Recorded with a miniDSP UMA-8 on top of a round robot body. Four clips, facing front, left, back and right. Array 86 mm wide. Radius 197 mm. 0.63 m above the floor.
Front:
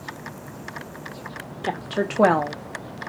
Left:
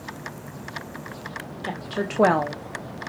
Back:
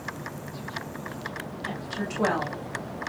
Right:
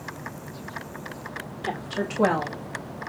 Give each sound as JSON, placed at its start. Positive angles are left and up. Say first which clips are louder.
{"t": 1.6, "sound": "a woman speaking", "louder": "even, front 9 dB", "azimuth_deg": 0, "distance_m": 1.2}